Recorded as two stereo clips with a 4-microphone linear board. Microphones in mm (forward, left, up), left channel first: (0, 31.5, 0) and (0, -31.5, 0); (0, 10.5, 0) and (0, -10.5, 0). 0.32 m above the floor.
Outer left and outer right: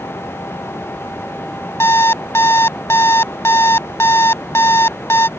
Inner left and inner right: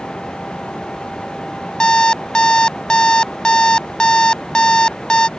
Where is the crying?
I don't hear crying.